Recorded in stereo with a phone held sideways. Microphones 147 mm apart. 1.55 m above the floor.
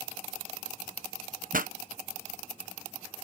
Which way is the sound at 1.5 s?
70° right (ahead or behind).